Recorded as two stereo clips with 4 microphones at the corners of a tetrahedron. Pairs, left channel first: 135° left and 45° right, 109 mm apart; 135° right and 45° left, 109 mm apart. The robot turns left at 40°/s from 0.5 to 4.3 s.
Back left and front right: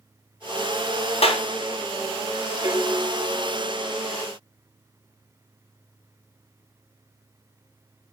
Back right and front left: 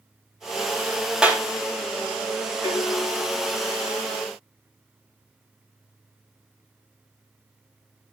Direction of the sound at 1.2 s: 125° left.